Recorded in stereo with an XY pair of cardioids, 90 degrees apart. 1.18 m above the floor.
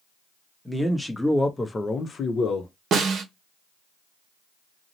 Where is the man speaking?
5° right, 1.0 m; by 2.7 s 75° left, 0.7 m.